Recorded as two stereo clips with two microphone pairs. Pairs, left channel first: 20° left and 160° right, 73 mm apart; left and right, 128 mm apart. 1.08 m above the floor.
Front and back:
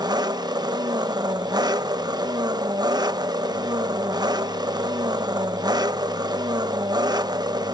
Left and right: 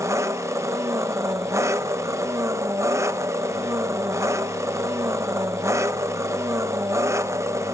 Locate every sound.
0.0 s an engine running: 155° right, 1.0 m